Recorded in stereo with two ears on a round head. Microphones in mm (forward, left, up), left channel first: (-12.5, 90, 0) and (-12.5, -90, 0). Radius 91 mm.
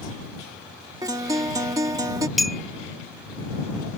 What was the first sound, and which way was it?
A guitar, 20° right (ahead or behind).